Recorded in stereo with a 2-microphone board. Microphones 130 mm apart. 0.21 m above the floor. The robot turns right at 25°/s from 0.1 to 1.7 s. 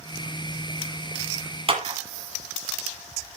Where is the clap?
45° right (ahead or behind), 1.8 m.